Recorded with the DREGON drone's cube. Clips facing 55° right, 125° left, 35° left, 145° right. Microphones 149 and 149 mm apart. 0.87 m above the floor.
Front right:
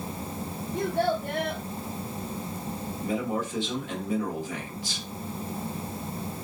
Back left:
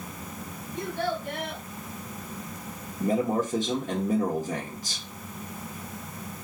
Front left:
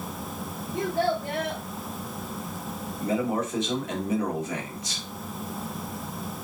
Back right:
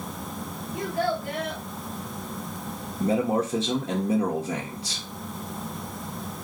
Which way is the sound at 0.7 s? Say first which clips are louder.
Front right 4 dB, front left 1 dB; 25° right.